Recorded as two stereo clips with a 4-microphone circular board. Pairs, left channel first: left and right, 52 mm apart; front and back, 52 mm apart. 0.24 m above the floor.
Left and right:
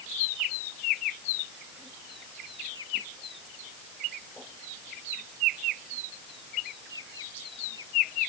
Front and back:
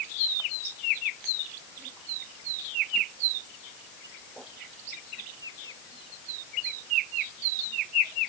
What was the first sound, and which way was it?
Only background noise.